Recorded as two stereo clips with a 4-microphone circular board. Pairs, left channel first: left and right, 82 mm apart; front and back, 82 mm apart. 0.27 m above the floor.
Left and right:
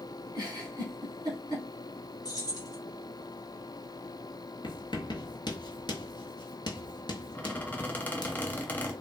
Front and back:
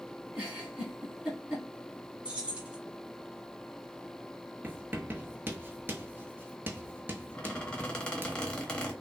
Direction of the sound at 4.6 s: 115° left.